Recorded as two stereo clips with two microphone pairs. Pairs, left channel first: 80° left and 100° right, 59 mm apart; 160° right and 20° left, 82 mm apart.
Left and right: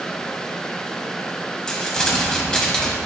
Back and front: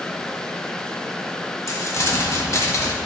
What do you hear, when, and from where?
1.7 s crumpling: 155° left, 1.2 m